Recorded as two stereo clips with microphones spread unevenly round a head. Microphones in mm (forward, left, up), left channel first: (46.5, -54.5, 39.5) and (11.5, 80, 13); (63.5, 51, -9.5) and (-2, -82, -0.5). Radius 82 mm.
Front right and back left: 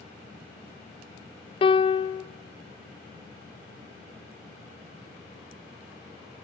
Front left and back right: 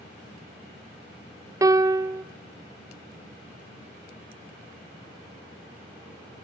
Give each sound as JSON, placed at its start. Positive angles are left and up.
{"t": 1.6, "sound": "a piano", "azimuth_deg": -60, "distance_m": 0.5}